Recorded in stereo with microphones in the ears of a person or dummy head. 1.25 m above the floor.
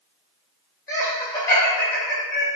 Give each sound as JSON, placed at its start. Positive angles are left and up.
{"t": 0.9, "sound": "laughter", "side_deg": 20, "distance_m": 1.8}